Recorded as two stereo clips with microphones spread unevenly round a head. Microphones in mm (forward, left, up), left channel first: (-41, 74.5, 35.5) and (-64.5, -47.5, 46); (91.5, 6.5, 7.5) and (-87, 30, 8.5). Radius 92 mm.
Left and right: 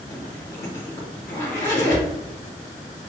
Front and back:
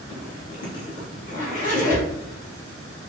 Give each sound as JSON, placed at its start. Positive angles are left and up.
{"t": 0.1, "sound": "a zipper", "azimuth_deg": 35, "distance_m": 1.0}